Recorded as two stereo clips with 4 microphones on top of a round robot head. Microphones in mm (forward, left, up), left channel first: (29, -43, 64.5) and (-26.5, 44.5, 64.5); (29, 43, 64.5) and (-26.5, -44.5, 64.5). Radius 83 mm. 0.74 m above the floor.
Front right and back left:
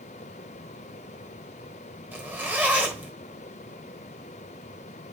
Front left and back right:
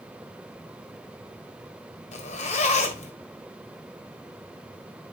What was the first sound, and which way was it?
A zipper, 50° left.